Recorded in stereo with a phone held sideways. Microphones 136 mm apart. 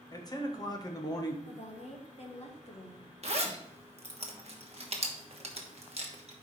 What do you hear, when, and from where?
0.1 s a man speaking: 30° left (ahead or behind), 1.2 m
1.4 s a woman speaking: 50° left (ahead or behind), 1.5 m
3.2 s a zipper: 50° right (ahead or behind), 1.2 m